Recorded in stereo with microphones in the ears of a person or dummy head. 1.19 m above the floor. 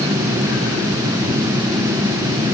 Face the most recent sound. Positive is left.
No sound to turn to.